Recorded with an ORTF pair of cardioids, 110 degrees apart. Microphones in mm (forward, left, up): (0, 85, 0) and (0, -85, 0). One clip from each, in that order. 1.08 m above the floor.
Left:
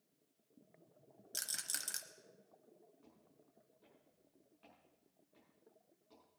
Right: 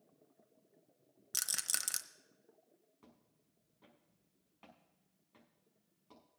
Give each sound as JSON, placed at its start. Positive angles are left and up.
{"t": 1.3, "sound": "a rattle", "azimuth_deg": -40, "distance_m": 1.0}
{"t": 3.0, "sound": "footsteps", "azimuth_deg": -70, "distance_m": 5.5}